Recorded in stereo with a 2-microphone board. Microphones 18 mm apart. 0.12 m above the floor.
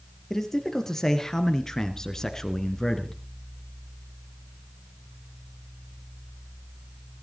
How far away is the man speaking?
About 3.5 m.